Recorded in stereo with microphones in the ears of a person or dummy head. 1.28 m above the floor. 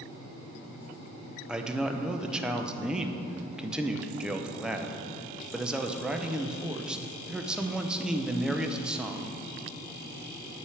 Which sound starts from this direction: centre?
A man speaking, at 1.5 s.